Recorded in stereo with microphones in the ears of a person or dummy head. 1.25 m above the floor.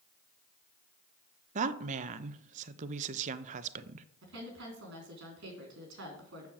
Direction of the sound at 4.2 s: 60° right (ahead or behind).